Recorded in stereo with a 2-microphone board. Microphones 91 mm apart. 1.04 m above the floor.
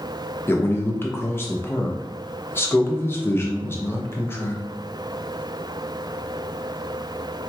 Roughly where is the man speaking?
Left.